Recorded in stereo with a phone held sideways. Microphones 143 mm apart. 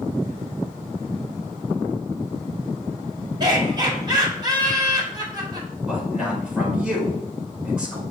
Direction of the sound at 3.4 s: 30° right (ahead or behind).